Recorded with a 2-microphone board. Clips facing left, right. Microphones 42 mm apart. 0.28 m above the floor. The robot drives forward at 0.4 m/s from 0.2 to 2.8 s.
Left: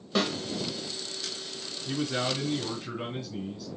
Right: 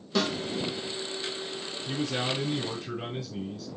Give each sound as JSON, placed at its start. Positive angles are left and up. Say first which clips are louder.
{"t": 0.1, "sound": "a snare drum", "louder": "even", "side_deg": 15, "distance_m": 3.5}
{"t": 1.9, "sound": "a man speaking", "louder": "left 1 dB", "side_deg": 20, "distance_m": 4.5}